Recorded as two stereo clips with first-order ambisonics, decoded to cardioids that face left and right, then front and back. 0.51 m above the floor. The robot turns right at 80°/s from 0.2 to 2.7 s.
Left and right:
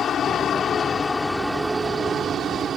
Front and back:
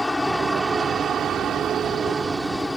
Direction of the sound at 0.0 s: 80° left.